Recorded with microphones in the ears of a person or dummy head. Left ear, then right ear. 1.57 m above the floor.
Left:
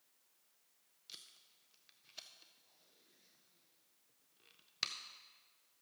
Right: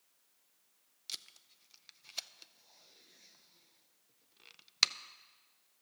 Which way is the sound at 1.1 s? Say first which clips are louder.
Right 10 dB; 35° right (ahead or behind).